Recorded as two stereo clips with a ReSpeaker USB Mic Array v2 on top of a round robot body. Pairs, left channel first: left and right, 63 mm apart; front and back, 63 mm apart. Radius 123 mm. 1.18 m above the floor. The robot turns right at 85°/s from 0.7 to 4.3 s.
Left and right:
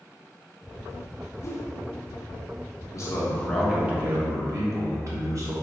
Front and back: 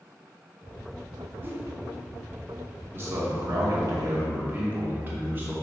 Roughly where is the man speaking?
Behind left.